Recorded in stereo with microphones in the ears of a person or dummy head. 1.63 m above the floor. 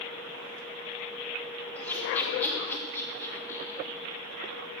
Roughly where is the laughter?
Centre.